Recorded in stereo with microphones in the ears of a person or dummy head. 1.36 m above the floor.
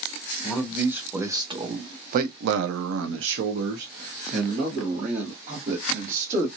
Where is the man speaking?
5° right (ahead or behind), 1.2 m; by 6.5 s 35° right (ahead or behind), 2 m.